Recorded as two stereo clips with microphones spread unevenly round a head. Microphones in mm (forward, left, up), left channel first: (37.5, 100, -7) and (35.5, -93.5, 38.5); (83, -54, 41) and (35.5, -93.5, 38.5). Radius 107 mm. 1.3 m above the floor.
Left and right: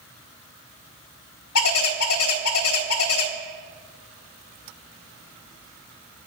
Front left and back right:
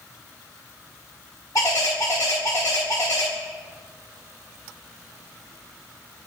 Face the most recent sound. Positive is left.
turn(degrees=95)